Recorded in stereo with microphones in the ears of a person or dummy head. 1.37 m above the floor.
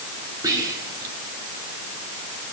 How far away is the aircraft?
I don't hear an aircraft.